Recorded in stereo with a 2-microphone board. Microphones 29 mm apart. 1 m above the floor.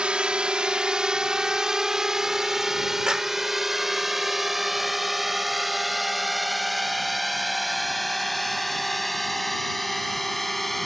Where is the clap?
20° right (ahead or behind).